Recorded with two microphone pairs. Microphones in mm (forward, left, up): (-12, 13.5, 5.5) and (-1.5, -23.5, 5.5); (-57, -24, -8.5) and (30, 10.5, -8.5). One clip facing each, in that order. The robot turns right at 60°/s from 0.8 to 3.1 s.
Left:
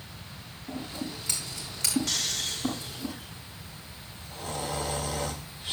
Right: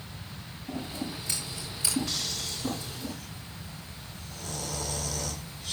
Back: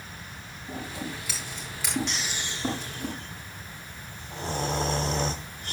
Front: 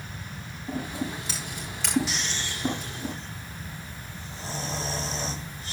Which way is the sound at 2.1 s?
110° left.